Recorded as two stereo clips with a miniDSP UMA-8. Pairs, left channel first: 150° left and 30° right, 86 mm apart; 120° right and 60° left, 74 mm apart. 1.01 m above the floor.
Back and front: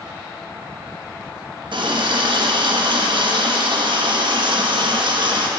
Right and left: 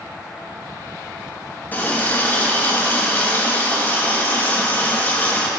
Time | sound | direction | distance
1.7 | a running tap | 55° right | 0.8 m